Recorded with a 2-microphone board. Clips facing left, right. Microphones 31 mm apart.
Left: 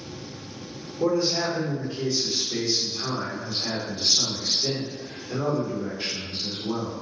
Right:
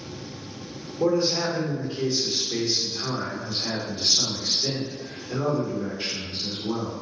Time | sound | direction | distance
1.0 | a man speaking | 20° right (ahead or behind) | 1.3 m